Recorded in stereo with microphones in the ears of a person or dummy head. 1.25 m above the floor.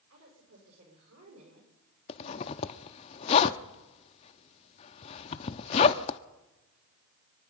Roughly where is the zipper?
Left.